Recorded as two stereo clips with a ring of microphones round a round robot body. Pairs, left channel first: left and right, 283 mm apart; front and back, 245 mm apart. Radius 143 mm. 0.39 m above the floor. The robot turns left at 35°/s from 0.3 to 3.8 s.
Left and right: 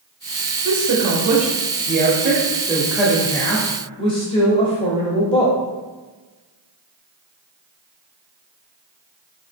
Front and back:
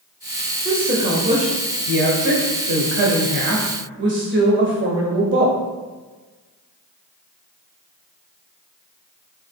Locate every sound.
0.7 s a woman speaking: 95° right, 1.3 m; by 5.6 s 155° left, 1.3 m